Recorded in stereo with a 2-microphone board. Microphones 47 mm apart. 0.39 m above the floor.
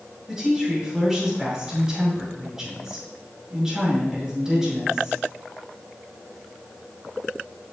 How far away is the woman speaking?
About 6 m.